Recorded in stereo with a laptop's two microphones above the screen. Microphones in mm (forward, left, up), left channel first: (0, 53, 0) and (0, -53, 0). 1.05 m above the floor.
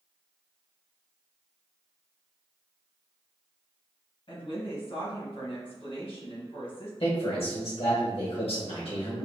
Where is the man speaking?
65° left (ahead or behind), 1.3 m.